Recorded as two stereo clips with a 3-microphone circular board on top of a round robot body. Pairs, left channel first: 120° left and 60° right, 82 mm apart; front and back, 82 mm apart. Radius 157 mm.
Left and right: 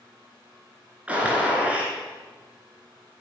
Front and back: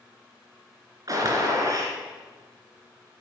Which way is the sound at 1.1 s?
135° right.